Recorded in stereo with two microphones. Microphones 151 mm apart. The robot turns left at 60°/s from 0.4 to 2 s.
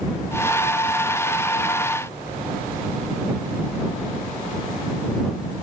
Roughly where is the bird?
I don't hear a bird.